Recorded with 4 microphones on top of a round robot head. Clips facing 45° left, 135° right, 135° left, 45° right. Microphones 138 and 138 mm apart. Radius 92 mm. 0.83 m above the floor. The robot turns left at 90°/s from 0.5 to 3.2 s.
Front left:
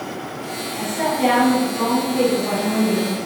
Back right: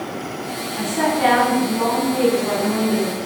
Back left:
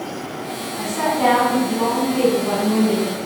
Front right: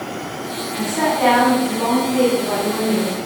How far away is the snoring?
No snoring in this recording.